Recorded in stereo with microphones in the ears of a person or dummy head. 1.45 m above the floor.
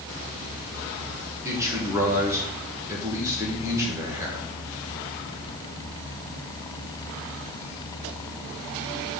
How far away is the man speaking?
About 1.8 m.